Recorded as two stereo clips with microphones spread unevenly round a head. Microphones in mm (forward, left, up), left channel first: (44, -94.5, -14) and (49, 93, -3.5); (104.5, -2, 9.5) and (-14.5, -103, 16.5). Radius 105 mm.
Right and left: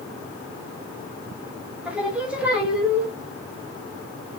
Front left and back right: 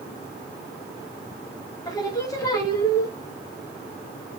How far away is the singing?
About 0.7 m.